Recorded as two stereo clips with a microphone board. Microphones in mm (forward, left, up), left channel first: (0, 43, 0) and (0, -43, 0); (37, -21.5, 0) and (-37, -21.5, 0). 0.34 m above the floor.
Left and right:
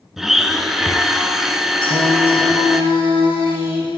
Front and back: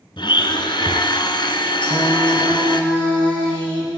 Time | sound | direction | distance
0.2 | a blender | 5° right | 1.5 m
1.8 | singing | 75° left | 9 m